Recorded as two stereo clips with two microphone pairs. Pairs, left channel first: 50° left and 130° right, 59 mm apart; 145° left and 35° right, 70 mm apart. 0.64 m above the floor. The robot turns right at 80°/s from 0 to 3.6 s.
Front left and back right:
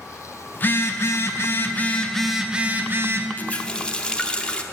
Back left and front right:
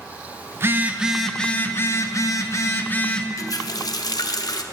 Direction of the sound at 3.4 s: 105° left.